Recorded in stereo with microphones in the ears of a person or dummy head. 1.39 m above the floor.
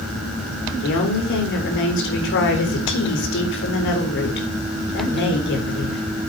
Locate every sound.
0.8 s a woman speaking: 60° left (ahead or behind), 4 m